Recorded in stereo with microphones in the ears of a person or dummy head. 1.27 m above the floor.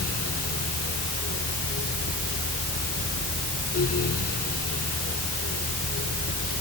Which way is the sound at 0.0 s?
45° left (ahead or behind).